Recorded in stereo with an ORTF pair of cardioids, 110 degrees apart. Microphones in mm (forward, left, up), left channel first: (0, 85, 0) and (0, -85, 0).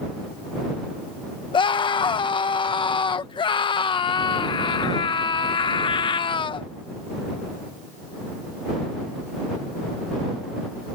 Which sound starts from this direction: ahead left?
A scream, at 1.5 s.